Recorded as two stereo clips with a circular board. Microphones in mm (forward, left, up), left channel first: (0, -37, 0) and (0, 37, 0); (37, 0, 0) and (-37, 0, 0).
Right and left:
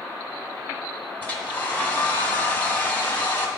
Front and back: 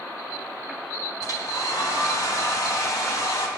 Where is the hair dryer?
25° right, 1.7 m.